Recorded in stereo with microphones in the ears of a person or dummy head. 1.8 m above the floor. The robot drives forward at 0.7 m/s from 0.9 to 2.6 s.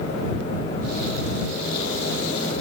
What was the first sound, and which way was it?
Only background noise.